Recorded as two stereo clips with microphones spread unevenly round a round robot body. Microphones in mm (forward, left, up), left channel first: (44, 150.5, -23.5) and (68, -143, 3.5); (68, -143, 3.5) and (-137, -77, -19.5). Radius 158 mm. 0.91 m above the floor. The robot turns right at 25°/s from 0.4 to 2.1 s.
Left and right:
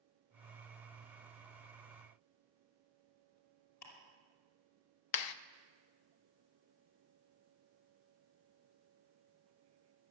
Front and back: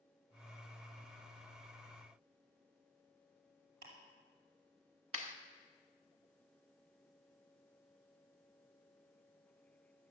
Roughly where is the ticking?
Behind left.